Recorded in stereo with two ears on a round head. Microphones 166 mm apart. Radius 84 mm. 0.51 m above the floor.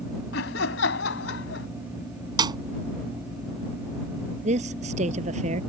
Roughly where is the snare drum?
Right.